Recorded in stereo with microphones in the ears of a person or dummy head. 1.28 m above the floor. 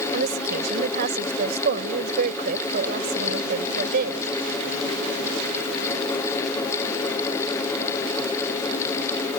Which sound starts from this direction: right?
A woman speaking, at 0.1 s.